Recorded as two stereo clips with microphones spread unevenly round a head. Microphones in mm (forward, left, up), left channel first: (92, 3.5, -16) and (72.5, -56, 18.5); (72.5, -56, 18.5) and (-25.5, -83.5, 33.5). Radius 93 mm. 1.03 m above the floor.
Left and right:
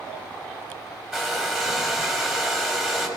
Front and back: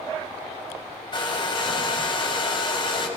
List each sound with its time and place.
1.1 s a hair dryer: 25° right, 6 m